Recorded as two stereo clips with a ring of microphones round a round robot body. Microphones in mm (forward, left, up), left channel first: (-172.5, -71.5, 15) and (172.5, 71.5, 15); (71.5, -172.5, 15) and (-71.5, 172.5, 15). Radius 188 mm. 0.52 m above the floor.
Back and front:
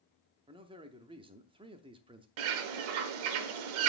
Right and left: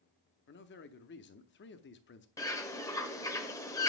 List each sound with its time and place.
0.5 s a man speaking: 40° right, 0.7 m
2.4 s a bird: 15° left, 0.9 m